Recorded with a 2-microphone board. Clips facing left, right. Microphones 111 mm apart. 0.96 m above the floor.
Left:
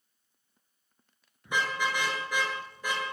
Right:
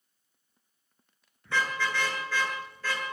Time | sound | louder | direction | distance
1.4 | a car horn | even | 15° left (ahead or behind) | 7.5 m